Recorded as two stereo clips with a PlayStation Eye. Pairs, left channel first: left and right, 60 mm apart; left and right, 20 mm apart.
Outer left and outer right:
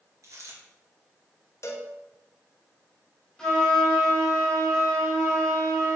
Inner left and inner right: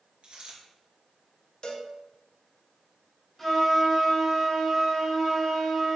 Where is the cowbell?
50° left (ahead or behind), 0.9 m.